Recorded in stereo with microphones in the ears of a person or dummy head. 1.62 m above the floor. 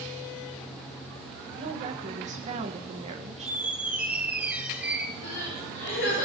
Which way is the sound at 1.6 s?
30° right (ahead or behind).